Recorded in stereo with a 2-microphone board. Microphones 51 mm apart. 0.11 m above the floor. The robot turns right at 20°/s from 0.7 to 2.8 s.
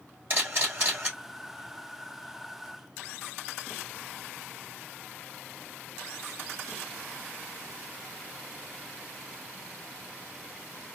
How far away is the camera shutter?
About 3 m.